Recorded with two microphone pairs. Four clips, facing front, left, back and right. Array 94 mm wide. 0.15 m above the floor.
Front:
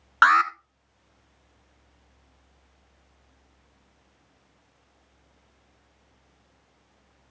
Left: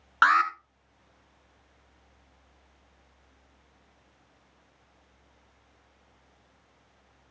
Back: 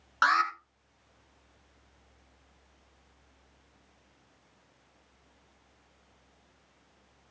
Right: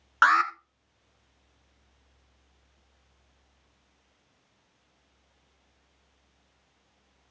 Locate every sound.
0.2 s an alarm: 5° right, 1.2 m